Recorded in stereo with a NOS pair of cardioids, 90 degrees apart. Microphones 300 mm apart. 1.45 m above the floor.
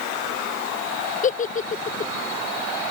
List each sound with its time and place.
1.2 s a giggle: 25° left